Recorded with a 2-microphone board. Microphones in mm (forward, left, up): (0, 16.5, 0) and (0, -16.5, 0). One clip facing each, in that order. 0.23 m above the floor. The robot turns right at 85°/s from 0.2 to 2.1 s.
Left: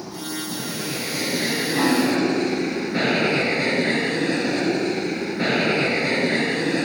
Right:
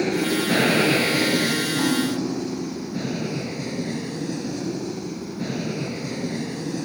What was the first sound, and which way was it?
An aircraft, 100° right.